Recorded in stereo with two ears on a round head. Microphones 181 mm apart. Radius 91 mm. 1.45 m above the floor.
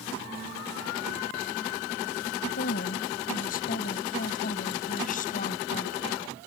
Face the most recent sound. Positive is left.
turn(degrees=40)  # may be behind; listen again after turning